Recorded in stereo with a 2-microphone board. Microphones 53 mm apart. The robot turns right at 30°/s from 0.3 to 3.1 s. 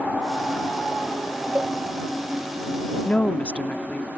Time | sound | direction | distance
1.6 | a cowbell | 30° right (ahead or behind) | ?
3.0 | a woman speaking | 25° left (ahead or behind) | ?